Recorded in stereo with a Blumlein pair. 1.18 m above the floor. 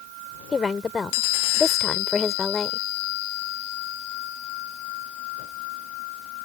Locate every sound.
0.5 s a woman speaking: 15° left